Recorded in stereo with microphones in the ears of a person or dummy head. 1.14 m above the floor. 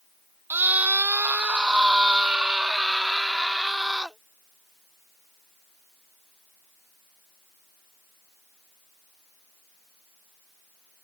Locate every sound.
0.5 s a scream: 15° right (ahead or behind); by 4.2 s 5° right (ahead or behind)